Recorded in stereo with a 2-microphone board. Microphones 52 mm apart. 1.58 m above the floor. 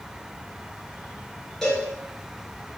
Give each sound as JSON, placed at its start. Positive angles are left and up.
{"t": 1.6, "sound": "a cowbell", "side_deg": 5, "distance_m": 2.5}